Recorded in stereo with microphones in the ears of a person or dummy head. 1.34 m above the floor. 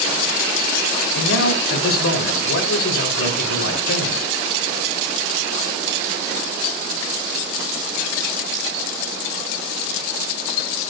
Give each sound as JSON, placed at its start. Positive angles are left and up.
{"t": 1.1, "sound": "a man speaking", "side_deg": 80, "distance_m": 5.0}